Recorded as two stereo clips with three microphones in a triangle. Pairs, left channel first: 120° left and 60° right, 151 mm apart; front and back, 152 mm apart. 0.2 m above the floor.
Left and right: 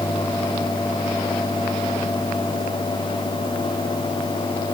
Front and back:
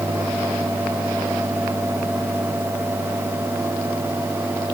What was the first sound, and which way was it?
Only background noise.